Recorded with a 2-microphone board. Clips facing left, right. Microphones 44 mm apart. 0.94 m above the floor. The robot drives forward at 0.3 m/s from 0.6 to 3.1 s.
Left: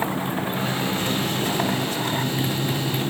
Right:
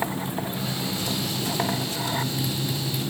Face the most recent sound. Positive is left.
turn(degrees=35)  # may be behind; listen again after turning